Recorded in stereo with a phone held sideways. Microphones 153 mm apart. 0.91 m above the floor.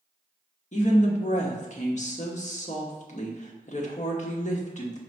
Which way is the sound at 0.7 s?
50° left (ahead or behind).